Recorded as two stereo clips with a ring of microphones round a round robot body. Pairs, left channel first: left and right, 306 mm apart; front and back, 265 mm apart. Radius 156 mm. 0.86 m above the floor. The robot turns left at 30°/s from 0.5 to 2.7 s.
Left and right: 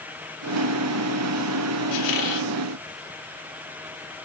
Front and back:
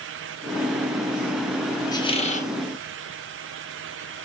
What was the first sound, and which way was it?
A squeak, 75° left.